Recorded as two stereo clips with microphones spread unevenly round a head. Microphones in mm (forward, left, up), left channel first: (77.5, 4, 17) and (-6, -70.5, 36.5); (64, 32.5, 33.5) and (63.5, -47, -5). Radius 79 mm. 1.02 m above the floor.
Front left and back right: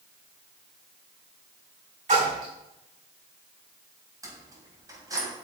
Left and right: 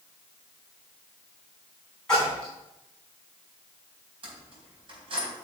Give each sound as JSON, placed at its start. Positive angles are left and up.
{"t": 2.1, "sound": "a splash", "azimuth_deg": 180, "distance_m": 3.5}
{"t": 4.2, "sound": "keys jangling", "azimuth_deg": -80, "distance_m": 4.0}